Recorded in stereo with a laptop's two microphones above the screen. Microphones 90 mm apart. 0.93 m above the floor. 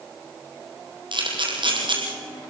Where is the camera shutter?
65° right (ahead or behind), 5 m.